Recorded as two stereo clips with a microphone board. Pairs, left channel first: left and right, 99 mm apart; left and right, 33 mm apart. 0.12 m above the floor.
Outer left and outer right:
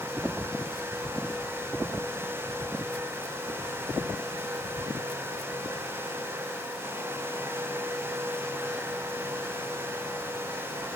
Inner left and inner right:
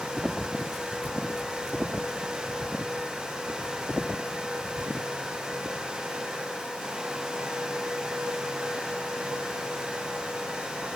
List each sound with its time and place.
Only background noise.